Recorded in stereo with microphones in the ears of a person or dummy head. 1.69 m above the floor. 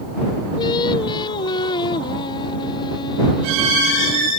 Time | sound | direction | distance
0.6 | singing | 25° left (ahead or behind) | ?